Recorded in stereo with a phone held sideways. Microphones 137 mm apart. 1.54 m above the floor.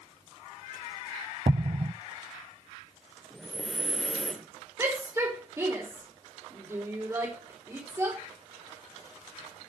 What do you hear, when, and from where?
1.5 s an explosion: 40° right (ahead or behind), 0.6 m
3.3 s breathing: centre (ahead or behind), 1.8 m
4.8 s a shout: 20° right (ahead or behind), 4.5 m